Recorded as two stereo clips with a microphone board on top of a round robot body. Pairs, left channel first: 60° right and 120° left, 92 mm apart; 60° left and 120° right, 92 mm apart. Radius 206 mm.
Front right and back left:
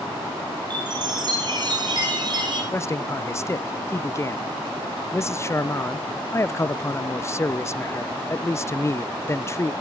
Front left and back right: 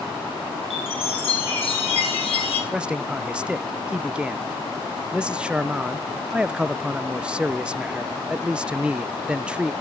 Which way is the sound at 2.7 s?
50° right.